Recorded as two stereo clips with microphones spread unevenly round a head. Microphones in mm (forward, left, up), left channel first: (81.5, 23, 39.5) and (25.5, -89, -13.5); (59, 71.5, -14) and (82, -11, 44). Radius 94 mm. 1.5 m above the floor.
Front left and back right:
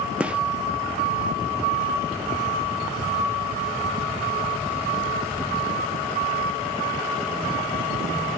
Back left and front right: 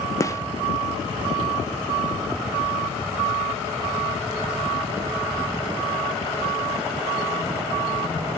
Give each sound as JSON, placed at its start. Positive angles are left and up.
{"t": 0.2, "sound": "a gunshot", "azimuth_deg": 10, "distance_m": 0.9}